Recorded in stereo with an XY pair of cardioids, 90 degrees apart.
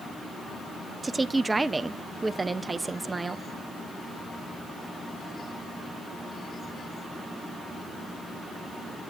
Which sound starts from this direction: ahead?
A woman speaking, at 1.0 s.